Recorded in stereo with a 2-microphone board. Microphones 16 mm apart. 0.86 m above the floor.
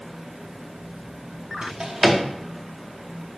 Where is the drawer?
45° right (ahead or behind), 0.7 m.